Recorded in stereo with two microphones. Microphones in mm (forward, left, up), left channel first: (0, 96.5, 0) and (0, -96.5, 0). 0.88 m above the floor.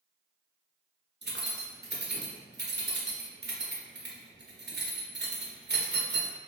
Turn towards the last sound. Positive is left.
turn(degrees=-65)  # may be behind; listen again after turning